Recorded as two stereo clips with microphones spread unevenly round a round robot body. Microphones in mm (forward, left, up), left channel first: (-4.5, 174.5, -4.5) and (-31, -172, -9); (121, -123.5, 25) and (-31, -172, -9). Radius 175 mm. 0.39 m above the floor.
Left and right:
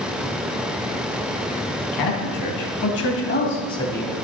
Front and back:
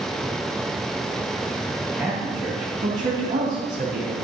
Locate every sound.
1.9 s a man speaking: 105° left, 3 m; by 4.1 s 175° left, 2.5 m